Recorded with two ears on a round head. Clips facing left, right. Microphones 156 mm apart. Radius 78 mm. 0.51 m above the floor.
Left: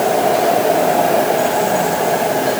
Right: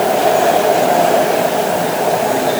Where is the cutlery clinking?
I don't hear cutlery clinking.